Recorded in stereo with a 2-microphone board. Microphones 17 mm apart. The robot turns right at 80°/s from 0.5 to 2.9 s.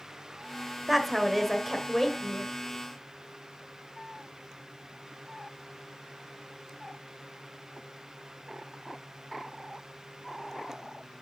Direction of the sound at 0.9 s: 10° right (ahead or behind).